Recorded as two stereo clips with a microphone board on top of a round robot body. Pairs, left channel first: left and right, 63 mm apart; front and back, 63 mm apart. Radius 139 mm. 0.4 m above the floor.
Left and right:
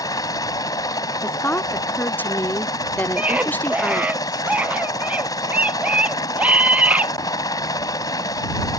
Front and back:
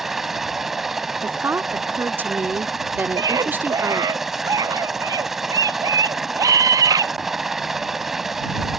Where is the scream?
155° right.